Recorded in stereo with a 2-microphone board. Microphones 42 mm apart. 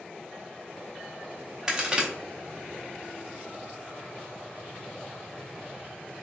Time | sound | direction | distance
1.7 | a crack | 20° right (ahead or behind) | 0.6 m